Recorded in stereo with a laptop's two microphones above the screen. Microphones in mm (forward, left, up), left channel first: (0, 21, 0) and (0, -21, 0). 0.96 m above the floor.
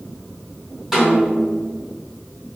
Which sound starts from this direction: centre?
A snare drum, at 0.9 s.